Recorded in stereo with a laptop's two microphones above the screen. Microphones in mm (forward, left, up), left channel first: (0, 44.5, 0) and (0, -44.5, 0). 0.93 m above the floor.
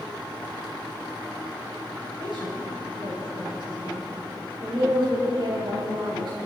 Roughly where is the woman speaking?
Right.